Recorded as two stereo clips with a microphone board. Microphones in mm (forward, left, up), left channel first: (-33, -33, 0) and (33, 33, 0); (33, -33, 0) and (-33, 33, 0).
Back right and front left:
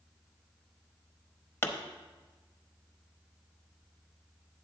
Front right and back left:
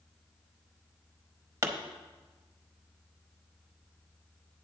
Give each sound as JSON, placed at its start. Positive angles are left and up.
{"t": 1.6, "sound": "a pop", "azimuth_deg": 175, "distance_m": 0.8}